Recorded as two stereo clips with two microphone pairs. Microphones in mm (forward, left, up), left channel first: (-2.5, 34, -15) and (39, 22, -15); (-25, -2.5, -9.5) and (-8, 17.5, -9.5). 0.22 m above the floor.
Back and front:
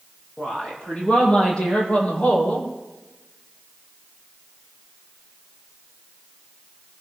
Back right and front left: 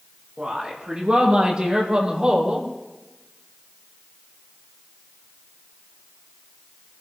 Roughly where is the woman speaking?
Left.